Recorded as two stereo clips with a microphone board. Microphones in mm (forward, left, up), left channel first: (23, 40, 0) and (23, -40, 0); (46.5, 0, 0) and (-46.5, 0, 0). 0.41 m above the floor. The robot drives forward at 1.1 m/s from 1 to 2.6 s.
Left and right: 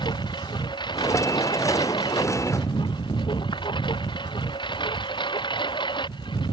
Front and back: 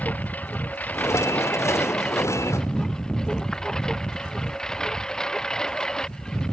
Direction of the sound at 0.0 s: 75° left.